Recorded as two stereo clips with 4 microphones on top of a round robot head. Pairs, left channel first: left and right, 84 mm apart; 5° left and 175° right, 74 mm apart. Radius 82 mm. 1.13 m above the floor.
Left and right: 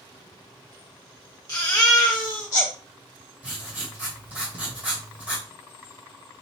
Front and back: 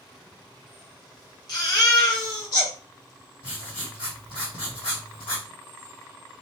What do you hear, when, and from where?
1.5 s a baby crying: 40° left, 1.3 m
3.4 s writing: 20° right, 1.2 m